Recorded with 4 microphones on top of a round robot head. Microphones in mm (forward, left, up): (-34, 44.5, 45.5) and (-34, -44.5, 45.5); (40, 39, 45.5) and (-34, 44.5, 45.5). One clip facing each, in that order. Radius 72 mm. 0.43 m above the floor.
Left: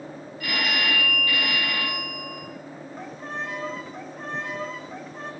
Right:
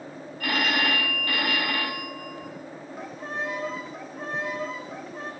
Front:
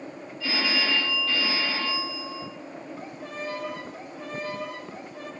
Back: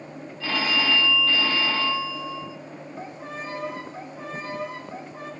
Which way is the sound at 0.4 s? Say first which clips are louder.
Right 2 dB, back 2 dB; 140° right.